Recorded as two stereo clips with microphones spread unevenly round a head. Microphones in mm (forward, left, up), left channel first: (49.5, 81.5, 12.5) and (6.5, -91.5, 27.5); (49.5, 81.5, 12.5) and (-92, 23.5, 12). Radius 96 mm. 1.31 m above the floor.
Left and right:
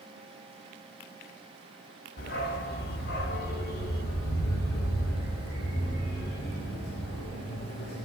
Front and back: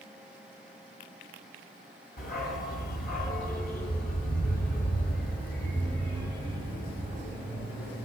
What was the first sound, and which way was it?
A dog barking, 40° left.